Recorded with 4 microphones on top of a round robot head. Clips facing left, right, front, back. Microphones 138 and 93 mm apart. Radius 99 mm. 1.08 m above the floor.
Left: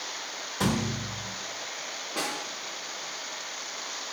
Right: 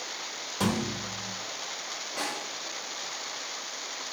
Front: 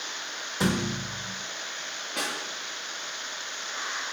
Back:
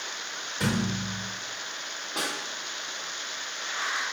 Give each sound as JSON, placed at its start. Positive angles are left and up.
{"t": 0.6, "sound": "a thud", "azimuth_deg": -10, "distance_m": 0.7}
{"t": 2.2, "sound": "a snare drum", "azimuth_deg": 120, "distance_m": 2.5}